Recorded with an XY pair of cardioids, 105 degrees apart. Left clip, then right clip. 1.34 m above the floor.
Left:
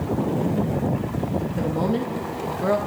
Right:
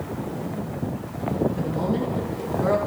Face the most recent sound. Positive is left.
turn(degrees=20)